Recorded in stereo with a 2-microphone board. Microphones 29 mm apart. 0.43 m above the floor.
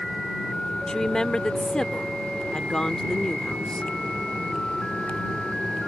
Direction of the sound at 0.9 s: 25° left (ahead or behind).